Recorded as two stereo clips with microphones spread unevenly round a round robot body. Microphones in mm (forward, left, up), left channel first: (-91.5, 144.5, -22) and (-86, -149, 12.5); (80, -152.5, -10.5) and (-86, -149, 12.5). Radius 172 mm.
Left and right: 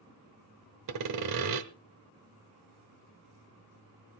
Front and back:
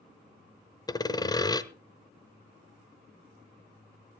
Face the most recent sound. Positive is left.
turn(degrees=-65)